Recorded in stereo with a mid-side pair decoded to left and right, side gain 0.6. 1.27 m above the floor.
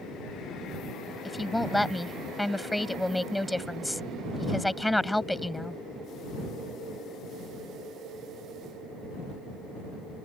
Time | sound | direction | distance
1.2 | a woman speaking | 5° left | ?